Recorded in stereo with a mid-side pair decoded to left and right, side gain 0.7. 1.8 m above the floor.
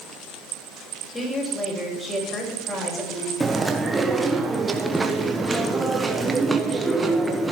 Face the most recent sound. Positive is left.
turn(degrees=-15)